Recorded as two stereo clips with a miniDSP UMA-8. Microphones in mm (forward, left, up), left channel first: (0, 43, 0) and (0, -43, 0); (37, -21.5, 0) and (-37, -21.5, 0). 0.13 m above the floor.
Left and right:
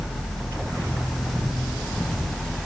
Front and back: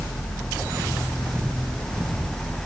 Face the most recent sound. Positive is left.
No sound to turn to.